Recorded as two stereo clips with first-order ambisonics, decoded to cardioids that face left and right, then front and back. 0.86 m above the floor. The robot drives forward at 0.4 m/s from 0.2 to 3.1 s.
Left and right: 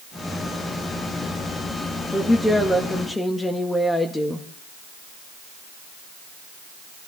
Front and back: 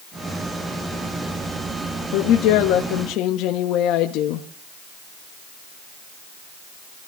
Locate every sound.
2.1 s a woman speaking: 5° left, 1.5 m; by 4.5 s 10° left, 1.1 m